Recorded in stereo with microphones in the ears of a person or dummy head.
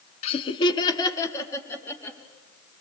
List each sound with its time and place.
0.2 s laughter: 35° left (ahead or behind), 1.4 m; by 2.2 s 10° left (ahead or behind), 3 m